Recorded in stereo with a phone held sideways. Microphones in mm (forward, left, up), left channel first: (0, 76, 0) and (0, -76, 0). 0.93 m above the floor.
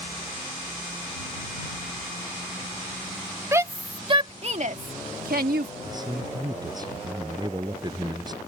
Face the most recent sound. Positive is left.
turn(degrees=-25)  # may be behind; listen again after turning